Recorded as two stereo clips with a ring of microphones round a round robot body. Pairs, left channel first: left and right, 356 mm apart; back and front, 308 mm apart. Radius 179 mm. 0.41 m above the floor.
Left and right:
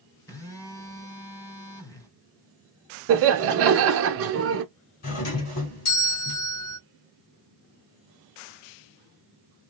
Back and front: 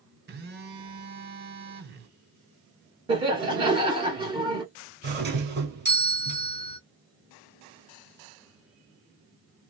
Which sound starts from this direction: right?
Laughter, at 3.1 s.